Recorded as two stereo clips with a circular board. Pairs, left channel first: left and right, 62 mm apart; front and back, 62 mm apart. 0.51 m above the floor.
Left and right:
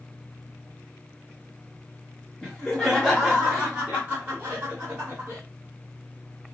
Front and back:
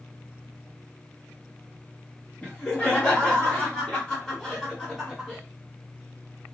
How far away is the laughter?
About 1.4 m.